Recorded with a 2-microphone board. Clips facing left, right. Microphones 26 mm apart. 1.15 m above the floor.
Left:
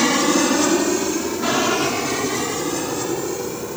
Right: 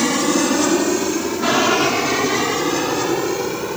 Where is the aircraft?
10° left (ahead or behind); by 3.8 s 35° right (ahead or behind).